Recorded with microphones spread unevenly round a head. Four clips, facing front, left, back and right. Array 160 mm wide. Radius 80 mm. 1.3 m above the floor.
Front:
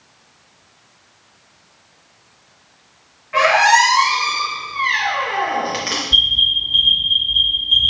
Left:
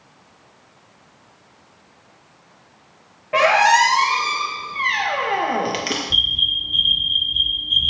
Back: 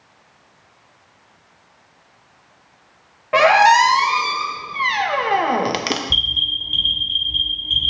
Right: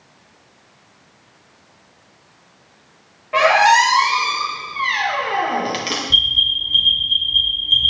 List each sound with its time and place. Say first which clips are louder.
3.3 s a squeak: right 2 dB, back 2 dB; 175° left, 0.7 m
6.1 s an alarm: right 3 dB, front 4 dB; 160° right, 3 m